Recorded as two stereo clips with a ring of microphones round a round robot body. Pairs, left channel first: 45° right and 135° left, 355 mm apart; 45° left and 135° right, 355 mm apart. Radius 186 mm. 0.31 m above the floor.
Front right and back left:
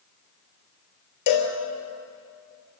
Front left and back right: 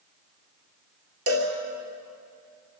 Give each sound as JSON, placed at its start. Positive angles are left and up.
{"t": 1.3, "sound": "a cowbell", "azimuth_deg": -85, "distance_m": 3.5}